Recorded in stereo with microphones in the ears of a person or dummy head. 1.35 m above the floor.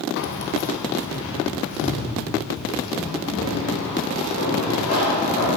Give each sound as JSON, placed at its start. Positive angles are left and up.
{"t": 0.2, "sound": "keys jangling", "side_deg": 50, "distance_m": 0.7}